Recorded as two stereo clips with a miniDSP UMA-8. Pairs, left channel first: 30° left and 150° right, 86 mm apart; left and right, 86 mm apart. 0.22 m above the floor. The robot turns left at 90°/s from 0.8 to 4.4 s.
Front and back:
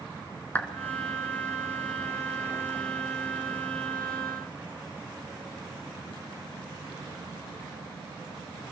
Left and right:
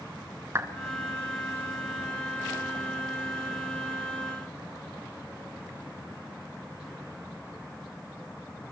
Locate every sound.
0.6 s a clap: 35° right, 1.9 m